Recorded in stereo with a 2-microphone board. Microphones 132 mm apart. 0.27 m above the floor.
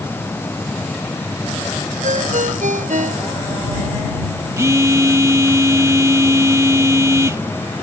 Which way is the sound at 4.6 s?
25° right (ahead or behind).